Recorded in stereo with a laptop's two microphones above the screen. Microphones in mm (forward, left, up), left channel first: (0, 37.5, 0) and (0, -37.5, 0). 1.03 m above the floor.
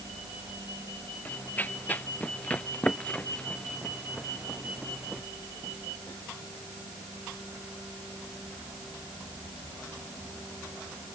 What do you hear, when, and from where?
1.2 s running footsteps: 25° left (ahead or behind); by 5.2 s centre (ahead or behind)